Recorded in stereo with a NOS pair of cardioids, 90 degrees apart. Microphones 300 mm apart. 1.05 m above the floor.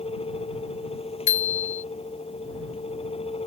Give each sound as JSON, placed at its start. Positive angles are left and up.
{"t": 0.0, "sound": "a fan", "azimuth_deg": 20}
{"t": 1.3, "sound": "a bicycle bell", "azimuth_deg": 70}